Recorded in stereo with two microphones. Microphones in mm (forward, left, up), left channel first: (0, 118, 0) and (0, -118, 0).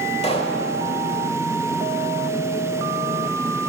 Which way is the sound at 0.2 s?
25° left (ahead or behind).